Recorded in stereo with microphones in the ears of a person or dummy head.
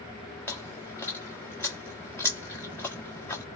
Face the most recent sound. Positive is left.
turn(degrees=10)  # may be behind; listen again after turning